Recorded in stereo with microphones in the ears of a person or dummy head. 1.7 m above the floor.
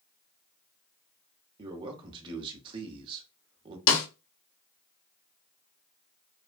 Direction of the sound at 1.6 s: 30° right (ahead or behind).